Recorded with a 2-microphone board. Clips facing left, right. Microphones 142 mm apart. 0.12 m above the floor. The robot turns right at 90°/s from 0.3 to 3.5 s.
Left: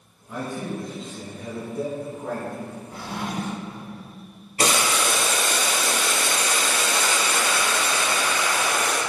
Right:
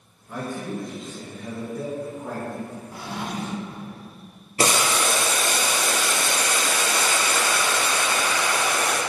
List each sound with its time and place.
0.3 s a man speaking: straight ahead, 1.3 m; by 2.8 s 135° right, 1.3 m
2.9 s a drawer: 10° right, 1.7 m; by 3.8 s 40° left, 1.7 m
4.6 s boiling: 35° right (ahead or behind), 2.0 m